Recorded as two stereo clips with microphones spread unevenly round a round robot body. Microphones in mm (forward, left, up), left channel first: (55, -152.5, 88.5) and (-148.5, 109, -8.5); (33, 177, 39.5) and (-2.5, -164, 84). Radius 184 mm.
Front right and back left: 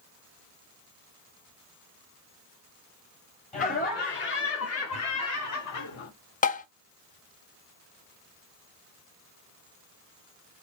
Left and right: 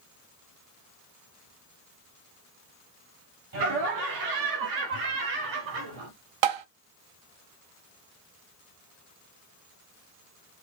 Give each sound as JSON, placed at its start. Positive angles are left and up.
{"t": 3.5, "sound": "laughter", "azimuth_deg": -130, "distance_m": 1.7}
{"t": 6.4, "sound": "tapping", "azimuth_deg": -120, "distance_m": 0.8}